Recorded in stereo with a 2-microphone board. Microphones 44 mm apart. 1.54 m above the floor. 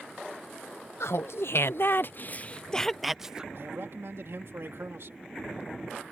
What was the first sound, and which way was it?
Laughter, 75° left (ahead or behind).